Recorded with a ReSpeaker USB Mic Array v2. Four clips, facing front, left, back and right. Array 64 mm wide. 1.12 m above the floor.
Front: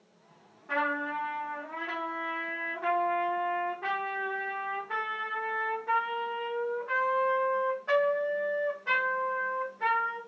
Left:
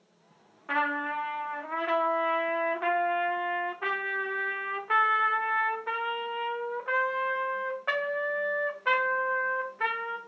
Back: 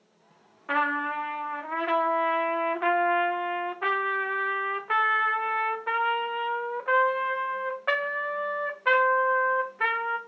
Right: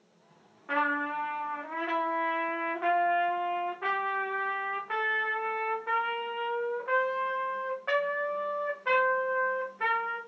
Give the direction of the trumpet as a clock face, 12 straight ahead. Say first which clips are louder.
Even, back 4 dB; 7 o'clock.